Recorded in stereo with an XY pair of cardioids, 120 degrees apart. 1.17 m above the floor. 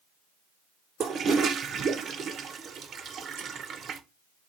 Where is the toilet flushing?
45° right, 0.6 m.